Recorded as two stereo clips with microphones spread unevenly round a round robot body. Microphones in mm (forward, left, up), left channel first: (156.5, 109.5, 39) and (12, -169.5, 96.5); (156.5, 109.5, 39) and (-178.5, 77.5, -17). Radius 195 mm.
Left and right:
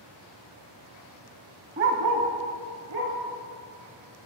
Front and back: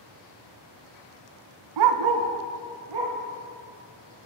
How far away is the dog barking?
About 0.8 m.